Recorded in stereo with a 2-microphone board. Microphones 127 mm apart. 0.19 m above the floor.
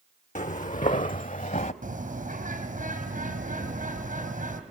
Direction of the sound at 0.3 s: 70° left (ahead or behind).